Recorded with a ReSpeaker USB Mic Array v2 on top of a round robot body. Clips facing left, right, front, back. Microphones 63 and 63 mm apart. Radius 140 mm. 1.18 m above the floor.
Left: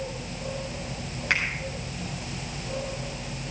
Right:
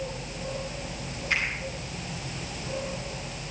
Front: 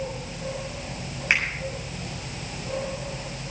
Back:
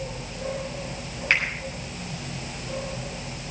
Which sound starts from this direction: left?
A finger snap, at 1.3 s.